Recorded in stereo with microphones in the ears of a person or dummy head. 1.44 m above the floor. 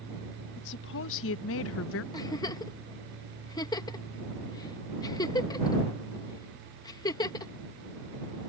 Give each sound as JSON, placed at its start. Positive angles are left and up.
{"t": 0.6, "sound": "a woman speaking", "side_deg": 60}
{"t": 2.1, "sound": "a giggle", "side_deg": 20}